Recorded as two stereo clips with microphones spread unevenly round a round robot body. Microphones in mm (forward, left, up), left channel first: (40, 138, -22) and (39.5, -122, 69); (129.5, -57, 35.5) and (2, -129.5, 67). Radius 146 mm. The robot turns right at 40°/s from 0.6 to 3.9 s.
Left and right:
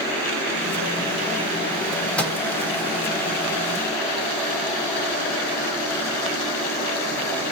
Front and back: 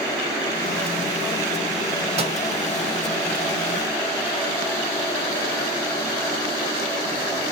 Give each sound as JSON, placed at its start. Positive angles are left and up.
{"t": 2.2, "sound": "a microwave", "azimuth_deg": 155, "distance_m": 0.6}